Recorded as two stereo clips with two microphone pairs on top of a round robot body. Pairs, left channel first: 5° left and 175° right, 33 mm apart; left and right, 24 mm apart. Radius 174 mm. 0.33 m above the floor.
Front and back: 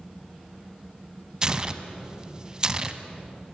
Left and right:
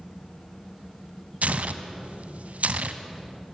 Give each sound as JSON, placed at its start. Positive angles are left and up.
{"t": 1.4, "sound": "tearing paper", "azimuth_deg": -105, "distance_m": 1.3}